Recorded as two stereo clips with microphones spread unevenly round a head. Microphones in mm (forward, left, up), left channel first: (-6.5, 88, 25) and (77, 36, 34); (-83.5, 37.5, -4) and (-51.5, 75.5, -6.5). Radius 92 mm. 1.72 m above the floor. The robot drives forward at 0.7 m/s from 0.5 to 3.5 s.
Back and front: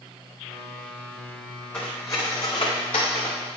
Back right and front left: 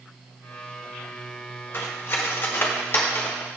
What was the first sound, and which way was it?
Cutlery clinking, 125° right.